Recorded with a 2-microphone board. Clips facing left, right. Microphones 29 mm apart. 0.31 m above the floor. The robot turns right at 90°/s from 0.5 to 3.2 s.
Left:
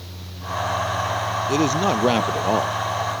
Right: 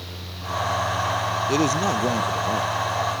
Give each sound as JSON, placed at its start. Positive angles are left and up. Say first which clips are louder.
{"t": 1.5, "sound": "a man speaking", "louder": "left 2 dB", "azimuth_deg": -10}